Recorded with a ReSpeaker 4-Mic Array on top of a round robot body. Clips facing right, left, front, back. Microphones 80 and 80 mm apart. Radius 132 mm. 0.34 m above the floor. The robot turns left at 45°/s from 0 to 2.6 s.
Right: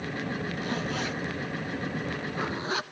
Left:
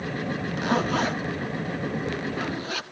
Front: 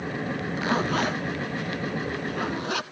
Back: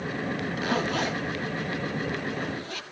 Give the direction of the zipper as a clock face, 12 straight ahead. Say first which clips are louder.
Left 11 dB, front 3 dB; 10 o'clock.